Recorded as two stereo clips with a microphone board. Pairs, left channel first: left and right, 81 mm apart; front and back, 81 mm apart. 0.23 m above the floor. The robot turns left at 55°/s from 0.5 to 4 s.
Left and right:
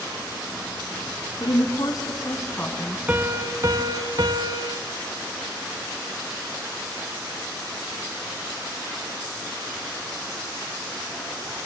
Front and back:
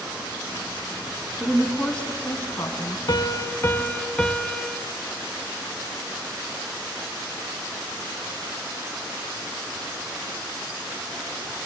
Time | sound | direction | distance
1.4 | a woman speaking | 105° left | 2.5 m
3.1 | a piano | 25° right | 0.8 m